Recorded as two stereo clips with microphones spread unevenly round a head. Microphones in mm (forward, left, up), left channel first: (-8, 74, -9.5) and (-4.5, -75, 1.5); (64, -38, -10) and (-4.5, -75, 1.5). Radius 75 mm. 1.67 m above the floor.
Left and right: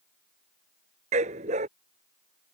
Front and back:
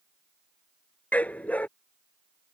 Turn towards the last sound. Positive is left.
turn(degrees=-45)